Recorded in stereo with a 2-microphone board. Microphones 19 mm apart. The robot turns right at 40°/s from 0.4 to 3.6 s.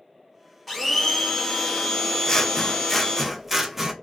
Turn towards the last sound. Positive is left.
turn(degrees=-165)